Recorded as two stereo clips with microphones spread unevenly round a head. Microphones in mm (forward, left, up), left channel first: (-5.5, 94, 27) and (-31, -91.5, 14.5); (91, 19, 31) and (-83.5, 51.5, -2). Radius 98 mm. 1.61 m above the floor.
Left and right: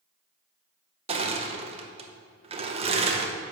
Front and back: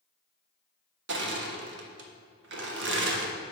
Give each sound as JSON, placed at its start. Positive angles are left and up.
{"t": 1.1, "sound": "crushing", "azimuth_deg": -160, "distance_m": 0.9}